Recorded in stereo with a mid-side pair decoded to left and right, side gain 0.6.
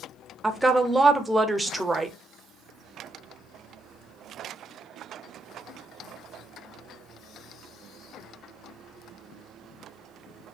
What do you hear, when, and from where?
0.4 s a woman speaking: 10° right, 0.7 m